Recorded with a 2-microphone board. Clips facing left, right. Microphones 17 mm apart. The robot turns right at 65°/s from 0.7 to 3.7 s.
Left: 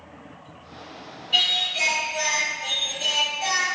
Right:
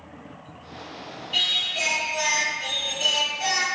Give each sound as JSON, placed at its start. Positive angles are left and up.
{"t": 1.3, "sound": "singing", "azimuth_deg": 130, "distance_m": 1.4}